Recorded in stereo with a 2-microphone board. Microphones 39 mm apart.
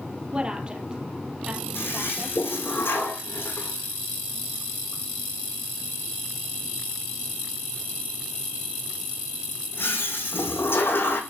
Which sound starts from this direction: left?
A toilet flushing, at 1.8 s.